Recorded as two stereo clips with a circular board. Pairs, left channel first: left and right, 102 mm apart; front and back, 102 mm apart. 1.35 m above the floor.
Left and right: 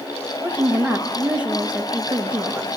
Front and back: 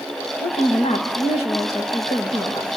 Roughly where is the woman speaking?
Ahead.